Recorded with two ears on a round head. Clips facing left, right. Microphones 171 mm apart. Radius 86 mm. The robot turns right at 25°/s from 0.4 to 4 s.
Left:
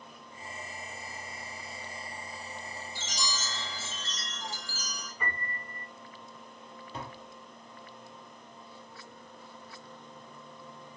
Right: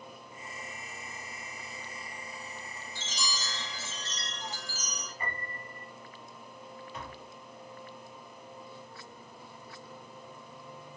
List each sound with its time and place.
3.0 s a chime: 5° left (ahead or behind), 2 m; by 5.1 s 30° left (ahead or behind), 2 m
5.2 s a piano: 55° left (ahead or behind), 3.5 m
6.9 s tapping: 25° left (ahead or behind), 0.7 m